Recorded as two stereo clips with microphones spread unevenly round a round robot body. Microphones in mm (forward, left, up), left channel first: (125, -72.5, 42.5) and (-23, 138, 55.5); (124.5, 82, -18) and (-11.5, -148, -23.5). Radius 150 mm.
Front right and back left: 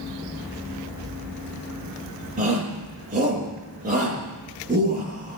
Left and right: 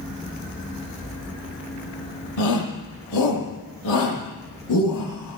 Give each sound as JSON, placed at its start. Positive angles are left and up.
{"t": 2.4, "sound": "a shout", "azimuth_deg": 65, "distance_m": 9.5}